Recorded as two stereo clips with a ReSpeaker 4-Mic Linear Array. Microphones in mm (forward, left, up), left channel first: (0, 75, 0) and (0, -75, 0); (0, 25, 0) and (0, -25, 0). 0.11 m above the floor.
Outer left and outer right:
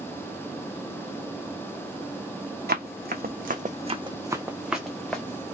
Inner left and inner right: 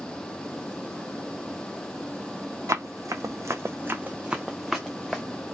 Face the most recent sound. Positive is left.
turn(degrees=10)  # may be behind; listen again after turning